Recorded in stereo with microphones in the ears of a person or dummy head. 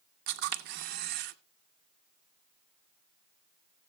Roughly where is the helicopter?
No helicopter in this recording.